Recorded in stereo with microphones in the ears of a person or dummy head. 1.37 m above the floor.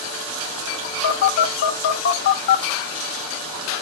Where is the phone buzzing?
50° left (ahead or behind), 1.1 m.